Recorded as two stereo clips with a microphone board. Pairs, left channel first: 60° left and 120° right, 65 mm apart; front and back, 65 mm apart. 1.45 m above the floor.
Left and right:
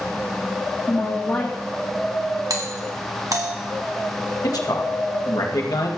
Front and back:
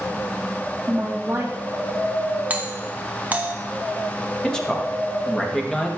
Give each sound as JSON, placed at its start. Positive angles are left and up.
{"t": 0.9, "sound": "a woman speaking", "azimuth_deg": 120, "distance_m": 1.3}
{"t": 2.5, "sound": "a doorbell", "azimuth_deg": -115, "distance_m": 1.4}
{"t": 4.4, "sound": "a man speaking", "azimuth_deg": 80, "distance_m": 1.9}